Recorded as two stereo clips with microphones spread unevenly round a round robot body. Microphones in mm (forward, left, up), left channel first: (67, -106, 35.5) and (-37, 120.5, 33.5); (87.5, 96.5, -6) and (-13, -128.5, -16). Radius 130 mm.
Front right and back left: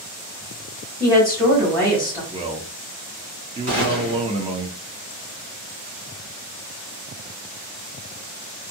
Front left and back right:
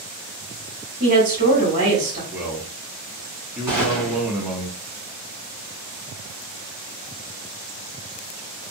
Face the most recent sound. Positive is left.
turn(degrees=165)